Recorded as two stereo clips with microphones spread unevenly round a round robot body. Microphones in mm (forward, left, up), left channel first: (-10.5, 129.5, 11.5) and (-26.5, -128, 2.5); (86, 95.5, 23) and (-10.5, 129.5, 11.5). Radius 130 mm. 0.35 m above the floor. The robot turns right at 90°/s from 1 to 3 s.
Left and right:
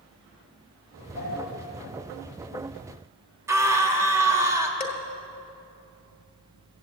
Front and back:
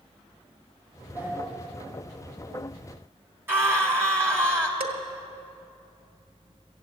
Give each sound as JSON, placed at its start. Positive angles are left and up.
{"t": 1.2, "sound": "a sliding door", "azimuth_deg": 85, "distance_m": 4.0}
{"t": 3.5, "sound": "a scream", "azimuth_deg": -160, "distance_m": 1.5}
{"t": 4.8, "sound": "dishes clattering", "azimuth_deg": 155, "distance_m": 1.5}